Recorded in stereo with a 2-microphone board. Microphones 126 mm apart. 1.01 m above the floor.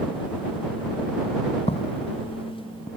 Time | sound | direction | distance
1.7 | footsteps | 55° left (ahead or behind) | ?